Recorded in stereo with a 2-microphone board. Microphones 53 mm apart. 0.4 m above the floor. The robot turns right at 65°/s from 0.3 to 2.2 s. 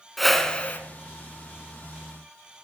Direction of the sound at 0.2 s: Straight ahead.